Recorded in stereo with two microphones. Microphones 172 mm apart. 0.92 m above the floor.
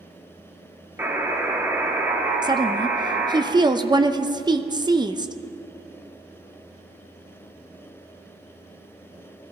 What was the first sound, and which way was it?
A buzzer, 15° right (ahead or behind).